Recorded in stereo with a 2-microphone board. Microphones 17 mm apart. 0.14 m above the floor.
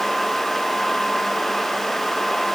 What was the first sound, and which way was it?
Only background noise.